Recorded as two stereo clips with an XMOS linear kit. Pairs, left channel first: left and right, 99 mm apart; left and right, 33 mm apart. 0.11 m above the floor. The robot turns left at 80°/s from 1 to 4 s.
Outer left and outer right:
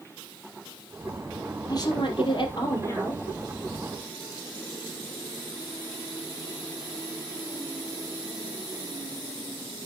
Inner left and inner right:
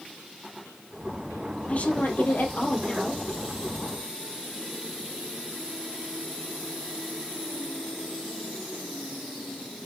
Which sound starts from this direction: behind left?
A woman speaking, at 1.7 s.